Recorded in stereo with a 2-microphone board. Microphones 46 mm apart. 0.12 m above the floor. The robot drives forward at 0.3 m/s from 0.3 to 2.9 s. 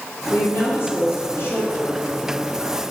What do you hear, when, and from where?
0.3 s a woman speaking: 55° left (ahead or behind), 3 m; by 2.2 s 50° left (ahead or behind), 3 m